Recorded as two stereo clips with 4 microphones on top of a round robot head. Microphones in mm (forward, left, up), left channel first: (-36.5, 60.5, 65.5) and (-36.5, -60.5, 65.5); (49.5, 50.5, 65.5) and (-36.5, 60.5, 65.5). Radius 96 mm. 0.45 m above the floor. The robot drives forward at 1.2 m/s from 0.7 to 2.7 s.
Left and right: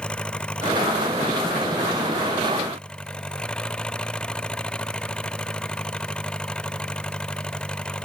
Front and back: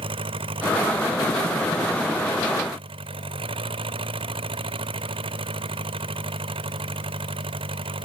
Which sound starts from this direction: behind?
An engine running, at 0.0 s.